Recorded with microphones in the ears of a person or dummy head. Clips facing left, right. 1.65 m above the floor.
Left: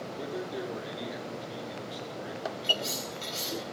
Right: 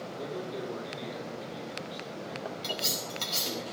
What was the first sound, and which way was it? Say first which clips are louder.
A man speaking: left 1 dB; 10° left (ahead or behind).